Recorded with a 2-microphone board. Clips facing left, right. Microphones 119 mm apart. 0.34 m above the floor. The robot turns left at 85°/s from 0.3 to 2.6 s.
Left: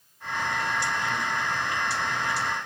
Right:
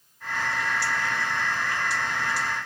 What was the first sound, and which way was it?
Only background noise.